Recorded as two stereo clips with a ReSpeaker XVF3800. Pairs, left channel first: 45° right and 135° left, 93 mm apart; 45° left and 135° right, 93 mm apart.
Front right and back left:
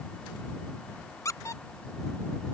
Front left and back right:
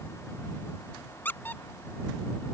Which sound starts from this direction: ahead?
A squeak, at 1.2 s.